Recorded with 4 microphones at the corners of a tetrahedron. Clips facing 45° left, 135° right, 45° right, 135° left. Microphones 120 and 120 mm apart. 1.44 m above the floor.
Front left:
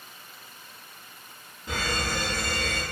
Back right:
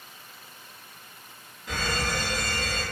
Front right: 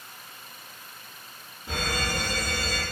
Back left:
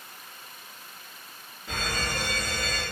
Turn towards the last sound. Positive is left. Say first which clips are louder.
# even, front right 2 dB
turn(degrees=-5)